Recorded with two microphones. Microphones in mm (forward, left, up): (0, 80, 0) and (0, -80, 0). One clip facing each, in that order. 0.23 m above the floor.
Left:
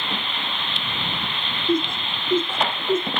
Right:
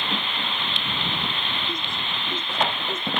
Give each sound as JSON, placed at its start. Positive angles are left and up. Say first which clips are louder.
{"t": 1.7, "sound": "laughter", "louder": "left 10 dB", "side_deg": 55}